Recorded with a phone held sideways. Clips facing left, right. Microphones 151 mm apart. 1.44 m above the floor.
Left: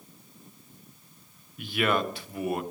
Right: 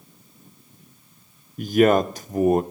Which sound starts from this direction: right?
A man speaking, at 1.6 s.